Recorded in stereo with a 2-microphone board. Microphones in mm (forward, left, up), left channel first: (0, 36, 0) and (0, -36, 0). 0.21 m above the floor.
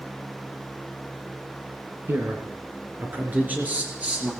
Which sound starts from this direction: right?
A man speaking, at 2.1 s.